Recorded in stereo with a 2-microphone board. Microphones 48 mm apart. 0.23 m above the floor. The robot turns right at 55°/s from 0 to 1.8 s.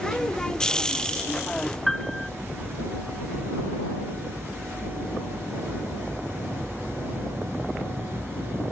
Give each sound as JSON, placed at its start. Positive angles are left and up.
{"t": 1.9, "sound": "a piano", "side_deg": 10}